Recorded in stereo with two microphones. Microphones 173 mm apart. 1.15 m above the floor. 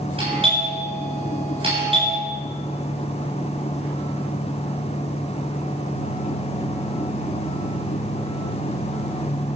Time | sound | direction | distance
0.2 | a doorbell | 35° right (ahead or behind) | 8.5 m